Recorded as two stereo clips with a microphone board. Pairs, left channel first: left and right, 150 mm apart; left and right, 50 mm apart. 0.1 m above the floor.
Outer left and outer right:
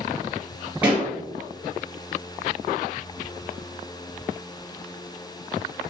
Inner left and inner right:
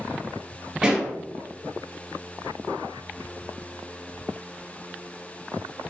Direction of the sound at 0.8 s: 10° right (ahead or behind).